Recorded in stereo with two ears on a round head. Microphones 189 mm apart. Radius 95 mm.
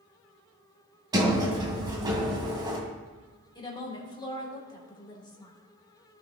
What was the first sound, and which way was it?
A sliding door, 20° right (ahead or behind).